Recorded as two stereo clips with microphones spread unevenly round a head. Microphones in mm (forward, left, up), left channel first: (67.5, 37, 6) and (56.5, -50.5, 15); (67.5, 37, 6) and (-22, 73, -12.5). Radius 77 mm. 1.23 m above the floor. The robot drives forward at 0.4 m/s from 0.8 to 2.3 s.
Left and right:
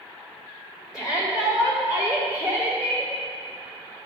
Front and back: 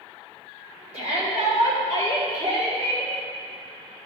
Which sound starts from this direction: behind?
A shout, at 0.9 s.